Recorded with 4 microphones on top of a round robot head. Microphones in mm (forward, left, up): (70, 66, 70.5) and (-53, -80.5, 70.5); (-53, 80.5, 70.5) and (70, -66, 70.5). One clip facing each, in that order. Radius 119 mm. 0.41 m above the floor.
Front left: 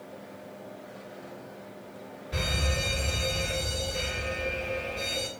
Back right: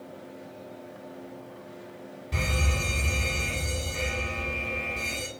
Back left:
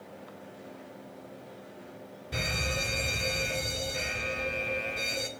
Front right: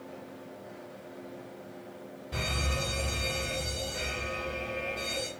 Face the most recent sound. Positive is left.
turn(degrees=-155)